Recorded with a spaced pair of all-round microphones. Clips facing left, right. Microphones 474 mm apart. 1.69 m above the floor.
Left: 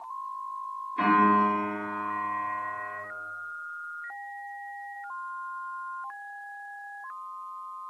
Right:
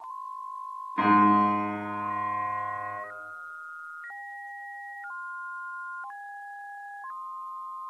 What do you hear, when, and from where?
1.0 s a piano: 75° right (ahead or behind), 1.1 m